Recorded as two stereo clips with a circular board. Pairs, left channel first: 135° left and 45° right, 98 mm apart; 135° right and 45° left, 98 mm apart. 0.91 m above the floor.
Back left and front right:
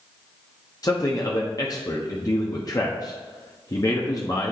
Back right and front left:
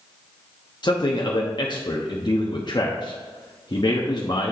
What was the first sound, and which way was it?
A man speaking, 175° right.